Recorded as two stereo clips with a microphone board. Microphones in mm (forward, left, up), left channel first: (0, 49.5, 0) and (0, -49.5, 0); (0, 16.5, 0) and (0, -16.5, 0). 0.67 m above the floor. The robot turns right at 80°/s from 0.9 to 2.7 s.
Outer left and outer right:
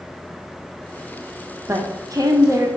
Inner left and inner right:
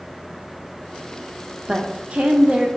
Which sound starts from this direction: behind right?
A woman speaking, at 1.7 s.